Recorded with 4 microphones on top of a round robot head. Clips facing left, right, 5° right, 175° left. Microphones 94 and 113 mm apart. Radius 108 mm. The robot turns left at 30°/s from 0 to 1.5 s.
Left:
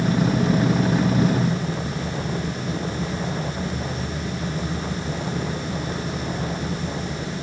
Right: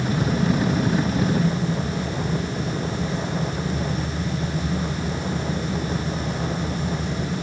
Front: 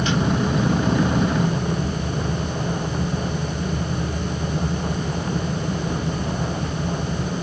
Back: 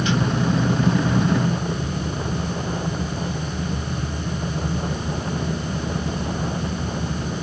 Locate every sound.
Only background noise.